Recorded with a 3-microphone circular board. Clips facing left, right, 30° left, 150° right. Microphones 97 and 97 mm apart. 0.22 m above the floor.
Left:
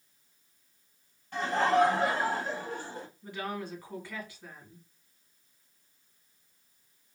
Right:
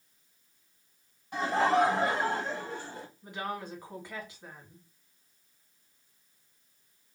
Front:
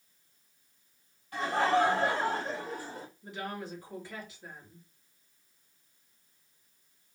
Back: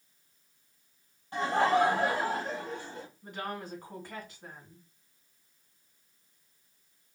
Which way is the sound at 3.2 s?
155° right.